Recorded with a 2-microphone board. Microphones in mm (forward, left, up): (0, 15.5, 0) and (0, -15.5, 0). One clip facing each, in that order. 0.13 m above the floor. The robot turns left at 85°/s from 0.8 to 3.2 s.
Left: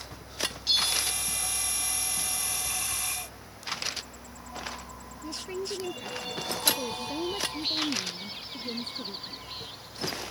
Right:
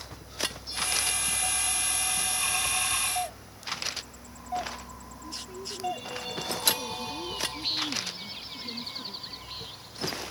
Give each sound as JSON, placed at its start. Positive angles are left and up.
{"t": 0.7, "sound": "a bell", "azimuth_deg": 100}
{"t": 3.1, "sound": "a doorbell", "side_deg": -85}
{"t": 5.2, "sound": "a woman speaking", "side_deg": 55}